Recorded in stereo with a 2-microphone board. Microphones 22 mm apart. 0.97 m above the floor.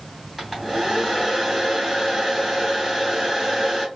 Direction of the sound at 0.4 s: 5° right (ahead or behind).